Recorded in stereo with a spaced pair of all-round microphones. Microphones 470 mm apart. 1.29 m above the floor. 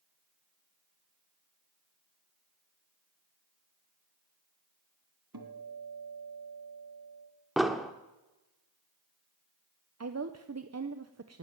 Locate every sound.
5.3 s a guitar: 55° right (ahead or behind), 2.5 m
7.6 s an explosion: centre (ahead or behind), 0.9 m
10.0 s a woman speaking: 35° right (ahead or behind), 0.6 m